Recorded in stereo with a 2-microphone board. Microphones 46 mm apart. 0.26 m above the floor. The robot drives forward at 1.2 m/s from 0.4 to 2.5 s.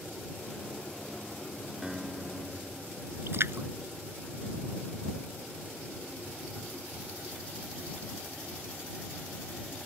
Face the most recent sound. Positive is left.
turn(degrees=-65)  # may be behind; listen again after turning